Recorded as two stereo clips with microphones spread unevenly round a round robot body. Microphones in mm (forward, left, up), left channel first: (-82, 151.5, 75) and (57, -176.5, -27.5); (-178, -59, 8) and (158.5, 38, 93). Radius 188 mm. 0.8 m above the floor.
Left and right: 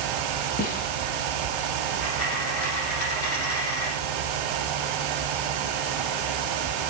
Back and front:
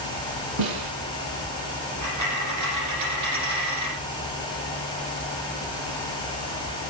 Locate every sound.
0.6 s a snare drum: 45° left, 4.5 m
2.0 s a dropped coin: 60° left, 7.5 m